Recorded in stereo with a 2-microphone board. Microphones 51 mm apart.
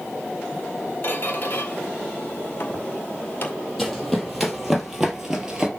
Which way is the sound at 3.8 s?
Centre (ahead or behind).